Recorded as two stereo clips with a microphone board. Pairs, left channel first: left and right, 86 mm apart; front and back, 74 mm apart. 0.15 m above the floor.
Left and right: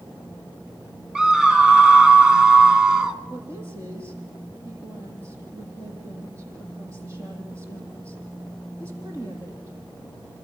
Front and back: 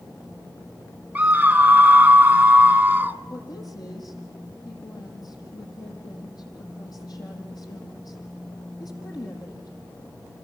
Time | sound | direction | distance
1.1 | a scream | 155° right | 1.4 m
3.3 | a woman speaking | 30° right | 7.5 m